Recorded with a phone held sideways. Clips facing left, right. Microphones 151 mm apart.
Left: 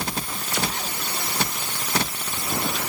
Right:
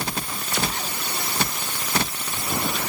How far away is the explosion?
No explosion in this recording.